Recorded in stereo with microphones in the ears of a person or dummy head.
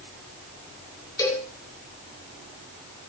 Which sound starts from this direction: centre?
A cowbell, at 1.2 s.